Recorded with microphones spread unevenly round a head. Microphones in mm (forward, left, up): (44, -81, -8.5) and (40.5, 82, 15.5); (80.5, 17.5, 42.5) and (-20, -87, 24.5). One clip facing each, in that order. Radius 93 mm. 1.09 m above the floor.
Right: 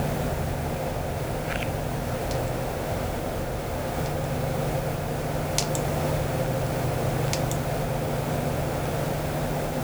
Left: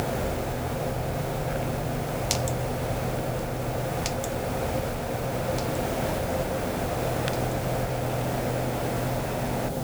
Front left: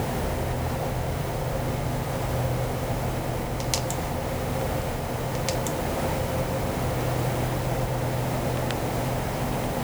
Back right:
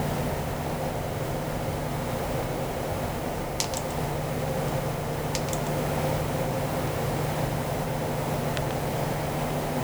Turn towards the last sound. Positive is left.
No sound to turn to.